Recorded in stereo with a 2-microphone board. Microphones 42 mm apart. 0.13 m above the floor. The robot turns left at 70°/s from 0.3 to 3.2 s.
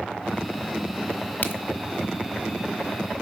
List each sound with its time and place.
1.4 s a crack: 45° left (ahead or behind), 1.1 m; by 1.6 s 35° left (ahead or behind), 1.1 m